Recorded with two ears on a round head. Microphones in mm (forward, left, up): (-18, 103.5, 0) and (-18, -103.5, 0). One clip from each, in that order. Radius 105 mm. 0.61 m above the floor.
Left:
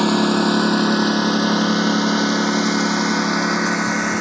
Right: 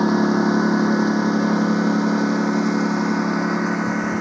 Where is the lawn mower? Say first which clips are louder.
Left 2 dB; 85° left; by 4.2 s 60° left (ahead or behind).